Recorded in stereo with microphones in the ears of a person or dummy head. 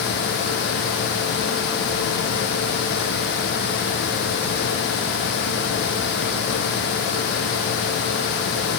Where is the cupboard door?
No cupboard door in this recording.